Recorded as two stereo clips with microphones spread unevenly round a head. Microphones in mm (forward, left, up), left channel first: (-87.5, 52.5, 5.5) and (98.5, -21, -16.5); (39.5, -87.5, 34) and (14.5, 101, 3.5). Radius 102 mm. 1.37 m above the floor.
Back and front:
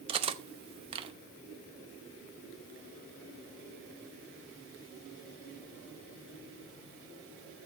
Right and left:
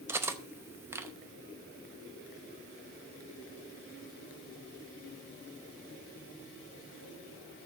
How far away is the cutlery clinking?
About 0.7 m.